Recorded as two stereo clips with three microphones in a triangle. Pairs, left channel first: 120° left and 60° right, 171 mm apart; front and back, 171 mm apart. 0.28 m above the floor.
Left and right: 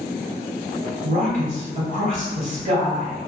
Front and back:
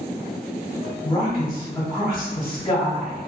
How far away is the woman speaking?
About 1.5 m.